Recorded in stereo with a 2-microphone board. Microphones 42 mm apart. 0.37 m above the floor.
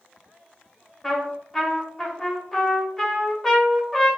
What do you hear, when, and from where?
1.0 s a trumpet: 5° left (ahead or behind), 1.6 m